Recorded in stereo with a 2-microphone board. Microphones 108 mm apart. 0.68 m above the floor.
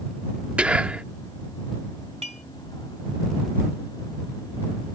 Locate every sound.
0.6 s whispering: 10° right (ahead or behind)
2.2 s dishes clattering: 80° right